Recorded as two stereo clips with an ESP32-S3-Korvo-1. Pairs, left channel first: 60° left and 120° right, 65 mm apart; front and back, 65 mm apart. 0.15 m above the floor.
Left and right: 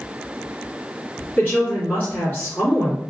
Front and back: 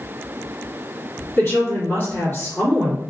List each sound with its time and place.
1.4 s a woman speaking: 15° left, 1.8 m